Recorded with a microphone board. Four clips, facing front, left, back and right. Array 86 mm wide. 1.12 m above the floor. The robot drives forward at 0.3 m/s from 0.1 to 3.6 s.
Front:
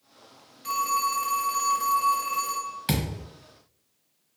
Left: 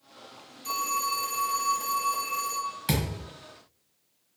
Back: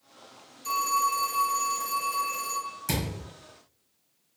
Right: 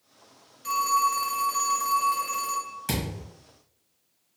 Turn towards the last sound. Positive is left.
turn(degrees=25)